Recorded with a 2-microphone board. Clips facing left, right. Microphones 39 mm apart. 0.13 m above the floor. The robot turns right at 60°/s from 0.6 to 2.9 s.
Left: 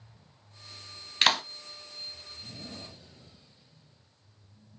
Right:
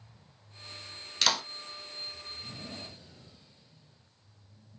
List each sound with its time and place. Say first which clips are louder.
1.2 s a clap: left 4 dB; 35° left (ahead or behind), 1.1 m; by 1.4 s 30° left (ahead or behind), 1.1 m